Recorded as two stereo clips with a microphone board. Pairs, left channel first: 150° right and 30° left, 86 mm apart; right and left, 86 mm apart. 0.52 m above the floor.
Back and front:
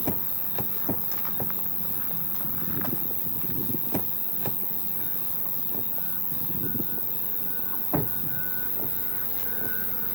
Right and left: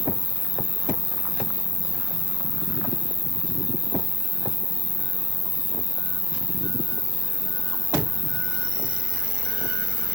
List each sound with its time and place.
0.0 s an insect: 60° right, 1.2 m